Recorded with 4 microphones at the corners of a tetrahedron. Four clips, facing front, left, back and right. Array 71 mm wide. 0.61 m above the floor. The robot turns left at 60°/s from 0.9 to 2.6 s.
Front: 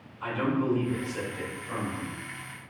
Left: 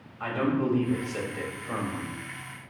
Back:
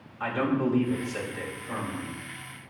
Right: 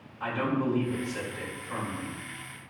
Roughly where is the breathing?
I don't hear breathing.